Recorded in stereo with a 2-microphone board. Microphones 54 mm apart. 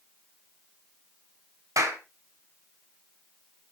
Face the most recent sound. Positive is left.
turn(degrees=-75)  # may be behind; listen again after turning